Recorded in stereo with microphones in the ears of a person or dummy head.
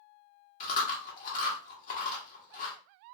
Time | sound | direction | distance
0.6 | chewing | 45° left (ahead or behind) | 1.2 m